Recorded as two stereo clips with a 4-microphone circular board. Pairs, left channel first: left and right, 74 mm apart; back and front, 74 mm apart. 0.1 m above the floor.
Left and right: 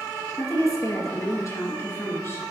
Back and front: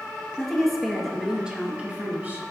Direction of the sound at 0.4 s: 100° left.